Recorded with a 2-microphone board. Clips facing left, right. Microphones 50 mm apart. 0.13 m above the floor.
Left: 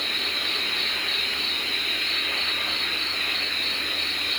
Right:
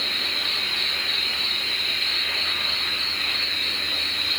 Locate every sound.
0.0 s an insect: 45° left (ahead or behind), 4.5 m